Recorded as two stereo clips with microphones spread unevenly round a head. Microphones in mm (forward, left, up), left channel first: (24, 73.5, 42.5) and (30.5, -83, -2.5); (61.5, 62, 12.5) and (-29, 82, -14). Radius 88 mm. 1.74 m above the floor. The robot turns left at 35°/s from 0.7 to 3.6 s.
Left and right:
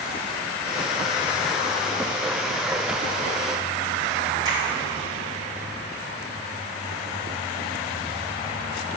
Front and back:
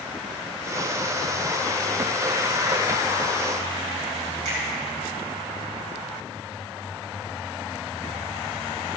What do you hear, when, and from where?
4.5 s a finger snap: 160° right, 2.5 m